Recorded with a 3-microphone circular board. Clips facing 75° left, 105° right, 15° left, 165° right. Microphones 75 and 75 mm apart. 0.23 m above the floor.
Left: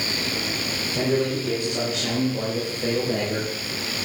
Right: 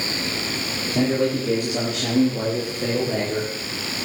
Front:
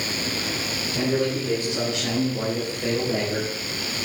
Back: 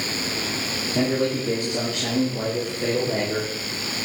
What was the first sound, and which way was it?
A man speaking, 120° right.